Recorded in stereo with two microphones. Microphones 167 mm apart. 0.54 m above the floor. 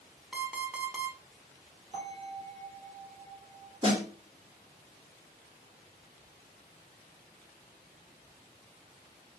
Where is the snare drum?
30° right (ahead or behind), 1.4 m.